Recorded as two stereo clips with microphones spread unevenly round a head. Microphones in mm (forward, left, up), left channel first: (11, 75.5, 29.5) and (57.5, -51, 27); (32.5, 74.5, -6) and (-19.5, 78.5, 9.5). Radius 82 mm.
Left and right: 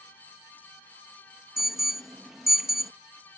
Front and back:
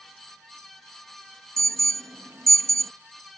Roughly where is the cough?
No cough in this recording.